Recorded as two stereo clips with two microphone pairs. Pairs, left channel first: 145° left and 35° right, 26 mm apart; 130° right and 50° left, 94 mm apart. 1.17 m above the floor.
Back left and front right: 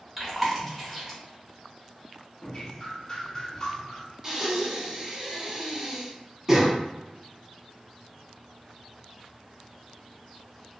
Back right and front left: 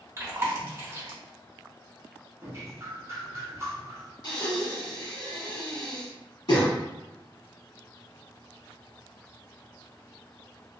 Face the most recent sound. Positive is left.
turn(degrees=-105)